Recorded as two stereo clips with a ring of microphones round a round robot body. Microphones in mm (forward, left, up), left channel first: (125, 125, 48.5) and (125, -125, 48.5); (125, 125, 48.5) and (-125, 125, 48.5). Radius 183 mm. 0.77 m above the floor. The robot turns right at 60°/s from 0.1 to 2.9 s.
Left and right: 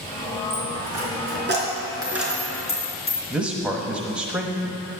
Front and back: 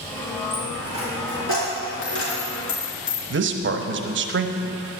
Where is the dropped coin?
105° right, 3.5 m; by 3.2 s 40° left, 3.5 m.